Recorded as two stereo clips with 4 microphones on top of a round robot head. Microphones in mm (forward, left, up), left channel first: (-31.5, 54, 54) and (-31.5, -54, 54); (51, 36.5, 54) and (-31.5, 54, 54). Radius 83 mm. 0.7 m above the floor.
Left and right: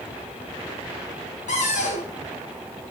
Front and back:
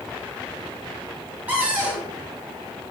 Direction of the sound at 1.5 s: 95° left.